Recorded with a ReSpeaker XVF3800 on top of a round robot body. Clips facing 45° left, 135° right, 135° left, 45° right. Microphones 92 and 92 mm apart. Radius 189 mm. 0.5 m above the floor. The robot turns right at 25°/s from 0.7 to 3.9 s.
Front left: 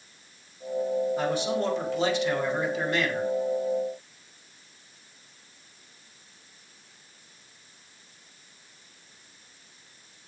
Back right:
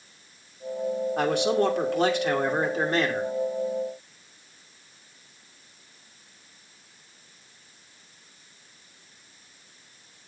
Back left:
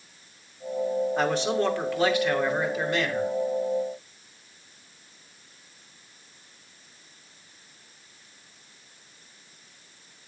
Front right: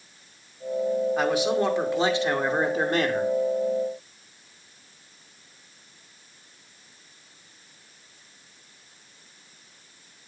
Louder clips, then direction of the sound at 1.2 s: Back right 4 dB, front right 2 dB; 130° right.